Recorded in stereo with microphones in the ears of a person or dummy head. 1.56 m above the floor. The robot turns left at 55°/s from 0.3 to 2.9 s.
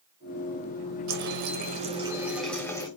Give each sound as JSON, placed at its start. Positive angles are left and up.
{"t": 1.1, "sound": "a running tap", "azimuth_deg": -100, "distance_m": 1.1}